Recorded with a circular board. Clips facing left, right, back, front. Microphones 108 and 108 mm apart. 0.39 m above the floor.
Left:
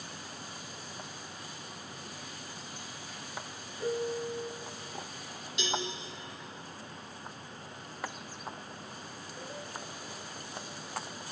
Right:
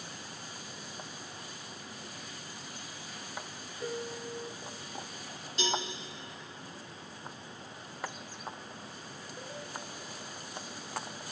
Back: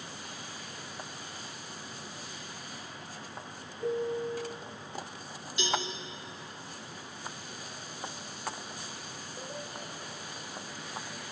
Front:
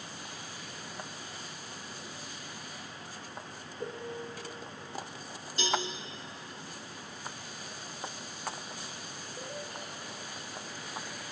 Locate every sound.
3.8 s a piano: 5° left, 1.9 m
5.6 s a cowbell: 45° right, 2.5 m